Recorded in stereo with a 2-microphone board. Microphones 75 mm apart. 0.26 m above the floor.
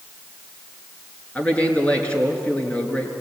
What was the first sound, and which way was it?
A man speaking, 15° left (ahead or behind).